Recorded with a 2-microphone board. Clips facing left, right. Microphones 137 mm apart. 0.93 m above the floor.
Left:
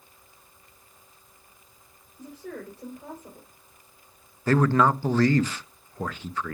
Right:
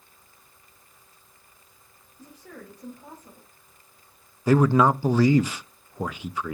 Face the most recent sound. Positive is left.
turn(degrees=-10)  # may be behind; listen again after turning